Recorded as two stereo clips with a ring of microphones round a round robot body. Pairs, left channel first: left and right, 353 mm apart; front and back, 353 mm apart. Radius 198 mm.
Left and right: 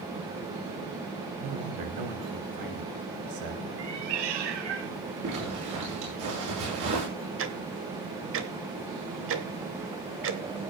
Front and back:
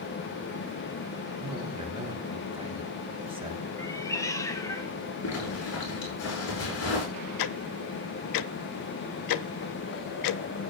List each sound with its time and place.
1.4 s a man speaking: 105° right, 3.5 m
3.8 s a cat meowing: 80° right, 2 m
5.2 s a zipper: 45° right, 9 m
7.4 s ticking: 30° right, 0.9 m